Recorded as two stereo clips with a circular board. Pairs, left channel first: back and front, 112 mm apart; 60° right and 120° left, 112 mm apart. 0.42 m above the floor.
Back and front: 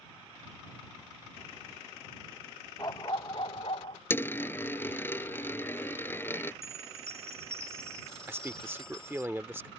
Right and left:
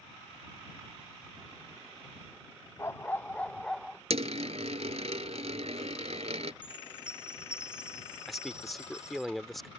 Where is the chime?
45° left.